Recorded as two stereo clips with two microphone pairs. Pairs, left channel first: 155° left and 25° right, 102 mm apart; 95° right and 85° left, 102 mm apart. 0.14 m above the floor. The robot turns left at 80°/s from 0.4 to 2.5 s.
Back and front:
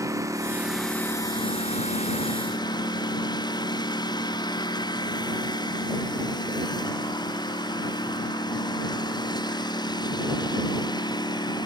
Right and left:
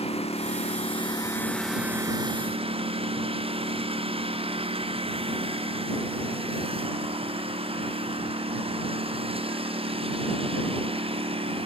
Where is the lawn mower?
85° right; by 11.7 s 110° left.